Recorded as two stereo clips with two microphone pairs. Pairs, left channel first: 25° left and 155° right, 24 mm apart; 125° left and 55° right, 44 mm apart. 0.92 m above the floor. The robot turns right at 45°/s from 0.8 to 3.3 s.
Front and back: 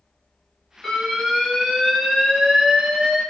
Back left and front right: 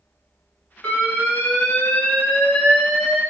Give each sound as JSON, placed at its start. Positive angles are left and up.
{"t": 0.8, "sound": "an alarm", "azimuth_deg": 100, "distance_m": 1.5}